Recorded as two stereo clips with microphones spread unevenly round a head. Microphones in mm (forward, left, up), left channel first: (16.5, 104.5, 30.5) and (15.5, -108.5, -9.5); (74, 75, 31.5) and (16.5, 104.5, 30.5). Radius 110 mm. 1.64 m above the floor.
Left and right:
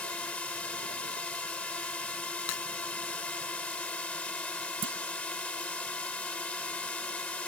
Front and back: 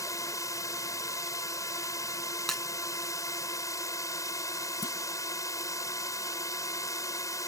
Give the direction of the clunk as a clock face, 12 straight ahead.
2 o'clock.